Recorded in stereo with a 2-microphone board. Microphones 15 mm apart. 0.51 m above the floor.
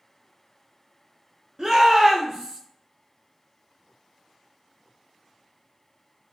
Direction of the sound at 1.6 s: 35° right (ahead or behind).